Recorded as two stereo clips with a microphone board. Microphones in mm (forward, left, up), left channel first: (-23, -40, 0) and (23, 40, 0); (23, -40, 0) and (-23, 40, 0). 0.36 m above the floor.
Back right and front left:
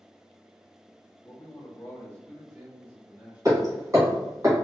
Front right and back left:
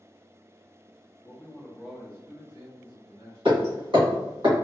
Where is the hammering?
110° left, 1.9 m.